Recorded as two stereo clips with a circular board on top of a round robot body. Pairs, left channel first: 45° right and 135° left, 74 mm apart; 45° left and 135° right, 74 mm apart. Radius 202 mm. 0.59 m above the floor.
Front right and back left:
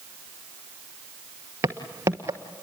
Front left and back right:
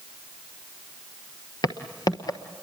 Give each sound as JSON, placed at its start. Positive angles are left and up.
{"t": 1.6, "sound": "footsteps", "azimuth_deg": 80, "distance_m": 1.0}